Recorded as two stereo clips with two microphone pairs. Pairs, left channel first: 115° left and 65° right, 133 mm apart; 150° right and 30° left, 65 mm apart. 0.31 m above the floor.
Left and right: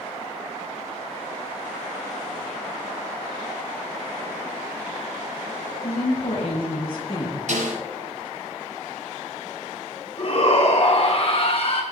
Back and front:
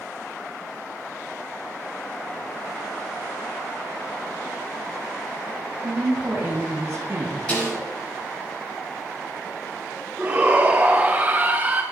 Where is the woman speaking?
75° left, 5.5 m; by 7.4 s 65° left, 4.5 m.